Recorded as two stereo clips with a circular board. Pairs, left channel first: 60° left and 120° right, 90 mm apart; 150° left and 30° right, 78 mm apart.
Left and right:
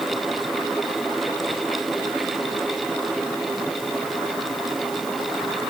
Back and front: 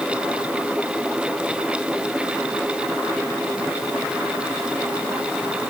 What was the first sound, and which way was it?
Only background noise.